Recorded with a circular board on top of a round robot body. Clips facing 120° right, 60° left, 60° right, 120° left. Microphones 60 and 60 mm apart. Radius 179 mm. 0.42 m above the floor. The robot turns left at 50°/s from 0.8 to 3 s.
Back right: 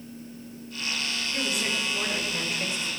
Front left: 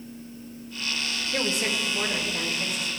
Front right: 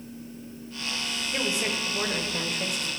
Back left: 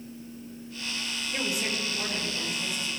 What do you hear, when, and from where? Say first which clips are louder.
1.3 s a woman speaking: front left 3 dB, front right 2 dB; 15° left, 2.5 m; by 2.9 s 65° right, 2.5 m